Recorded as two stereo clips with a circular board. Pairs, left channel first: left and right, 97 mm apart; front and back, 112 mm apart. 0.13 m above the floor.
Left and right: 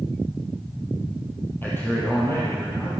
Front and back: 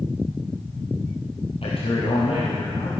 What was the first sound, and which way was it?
A man speaking, 25° left.